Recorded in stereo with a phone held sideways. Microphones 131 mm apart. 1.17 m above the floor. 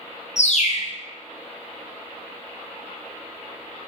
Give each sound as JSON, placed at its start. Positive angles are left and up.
{"t": 0.4, "sound": "a bird", "side_deg": 60, "distance_m": 0.8}